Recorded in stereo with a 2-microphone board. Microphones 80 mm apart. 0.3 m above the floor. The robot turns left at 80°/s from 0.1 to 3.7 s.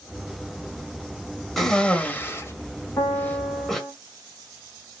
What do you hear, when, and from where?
1.6 s a cough: centre (ahead or behind), 1.0 m; by 3.8 s 5° left (ahead or behind), 1.0 m
3.0 s a piano: 50° left, 1.0 m; by 3.9 s 10° right, 1.0 m